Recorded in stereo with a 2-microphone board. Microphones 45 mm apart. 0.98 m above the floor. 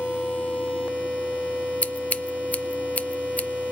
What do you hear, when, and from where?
1.8 s scissors: 30° left (ahead or behind), 0.6 m